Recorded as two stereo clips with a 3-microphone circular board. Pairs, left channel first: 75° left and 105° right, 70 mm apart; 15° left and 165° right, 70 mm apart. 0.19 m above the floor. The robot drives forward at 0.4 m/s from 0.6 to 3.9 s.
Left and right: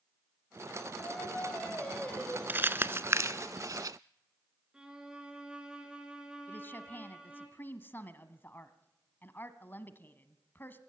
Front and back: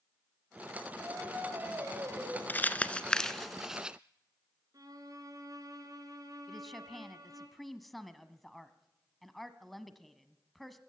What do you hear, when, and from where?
1.0 s singing: 140° left, 3.5 m; by 2.4 s 145° left, 3.5 m
2.5 s crumpling: 45° right, 0.8 m; by 4.0 s 90° right, 0.6 m
4.7 s a violin: straight behind, 3 m
6.5 s a woman speaking: 100° left, 1.1 m